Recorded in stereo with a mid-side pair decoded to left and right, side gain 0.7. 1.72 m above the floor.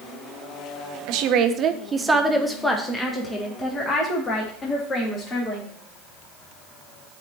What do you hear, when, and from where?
1.1 s a woman speaking: 65° right, 0.8 m; by 5.7 s 35° left, 2.5 m